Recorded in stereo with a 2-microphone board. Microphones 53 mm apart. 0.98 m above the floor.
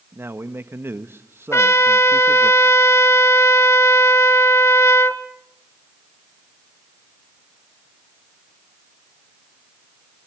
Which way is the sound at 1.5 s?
60° left (ahead or behind).